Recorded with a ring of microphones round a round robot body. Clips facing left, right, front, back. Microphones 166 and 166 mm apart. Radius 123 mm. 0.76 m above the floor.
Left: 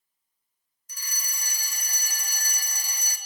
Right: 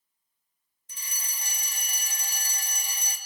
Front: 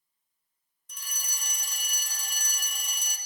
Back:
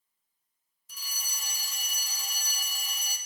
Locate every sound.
0.9 s a fire alarm: 95° right, 1.8 m